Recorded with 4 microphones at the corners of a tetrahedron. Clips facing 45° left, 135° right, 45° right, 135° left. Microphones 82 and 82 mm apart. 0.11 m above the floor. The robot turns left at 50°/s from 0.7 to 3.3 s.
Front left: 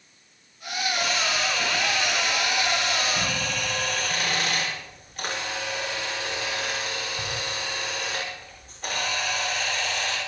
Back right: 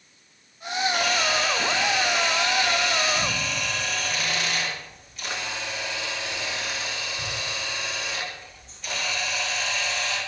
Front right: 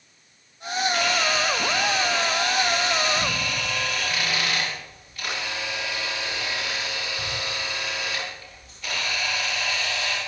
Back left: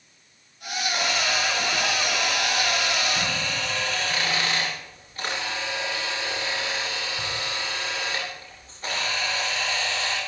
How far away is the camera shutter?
About 9 m.